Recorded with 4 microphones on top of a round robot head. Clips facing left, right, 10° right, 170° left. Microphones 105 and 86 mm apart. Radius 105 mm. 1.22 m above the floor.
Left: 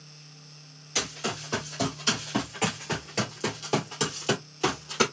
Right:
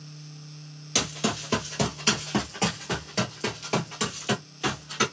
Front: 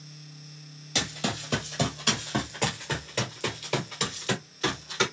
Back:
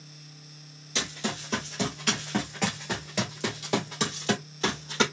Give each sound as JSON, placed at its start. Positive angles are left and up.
{"t": 0.9, "sound": "running footsteps", "azimuth_deg": -65, "distance_m": 1.7}